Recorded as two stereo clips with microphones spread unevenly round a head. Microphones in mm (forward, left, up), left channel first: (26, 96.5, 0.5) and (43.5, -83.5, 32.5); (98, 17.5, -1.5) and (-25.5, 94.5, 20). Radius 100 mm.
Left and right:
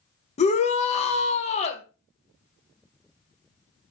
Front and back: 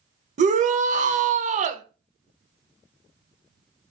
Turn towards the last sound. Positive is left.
turn(degrees=125)